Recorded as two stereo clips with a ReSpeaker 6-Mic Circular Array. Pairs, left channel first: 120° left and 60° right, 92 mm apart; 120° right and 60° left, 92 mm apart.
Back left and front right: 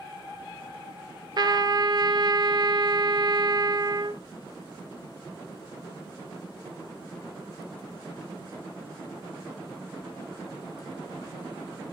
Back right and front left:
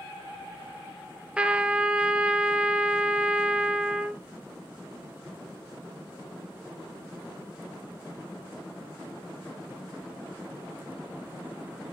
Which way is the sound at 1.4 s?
20° right.